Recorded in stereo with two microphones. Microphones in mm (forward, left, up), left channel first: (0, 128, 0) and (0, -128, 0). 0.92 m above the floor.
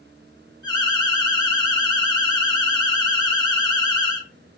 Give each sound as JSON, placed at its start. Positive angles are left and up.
{"t": 0.6, "sound": "an alarm", "side_deg": 15, "distance_m": 1.8}